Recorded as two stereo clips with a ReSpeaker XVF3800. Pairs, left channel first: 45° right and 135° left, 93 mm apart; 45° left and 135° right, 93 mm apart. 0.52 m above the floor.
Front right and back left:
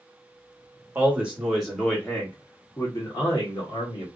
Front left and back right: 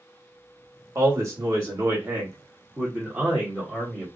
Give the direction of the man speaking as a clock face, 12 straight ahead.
6 o'clock.